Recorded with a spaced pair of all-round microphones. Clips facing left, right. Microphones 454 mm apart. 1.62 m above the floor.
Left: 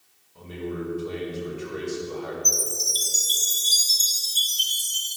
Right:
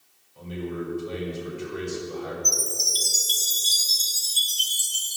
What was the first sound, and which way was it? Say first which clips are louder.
A man speaking: even; 70° left (ahead or behind).